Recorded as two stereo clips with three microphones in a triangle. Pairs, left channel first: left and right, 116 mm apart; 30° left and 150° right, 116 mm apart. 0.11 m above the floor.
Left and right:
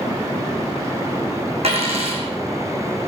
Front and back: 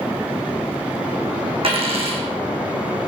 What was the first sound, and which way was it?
A dropped coin, 115° right.